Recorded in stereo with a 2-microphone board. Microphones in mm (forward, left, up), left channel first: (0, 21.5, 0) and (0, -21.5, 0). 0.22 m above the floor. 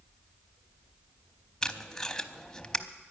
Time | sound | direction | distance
1.6 | tape being pulled | 15° left (ahead or behind) | 0.7 m